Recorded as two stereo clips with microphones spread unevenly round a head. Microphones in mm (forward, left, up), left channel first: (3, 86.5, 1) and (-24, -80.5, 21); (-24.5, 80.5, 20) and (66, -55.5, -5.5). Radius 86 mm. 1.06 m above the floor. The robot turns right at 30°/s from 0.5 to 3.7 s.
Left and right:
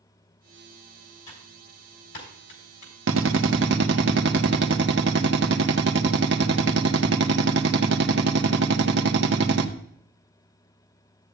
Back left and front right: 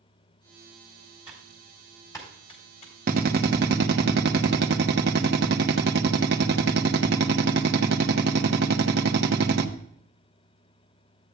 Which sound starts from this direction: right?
A drill, at 3.1 s.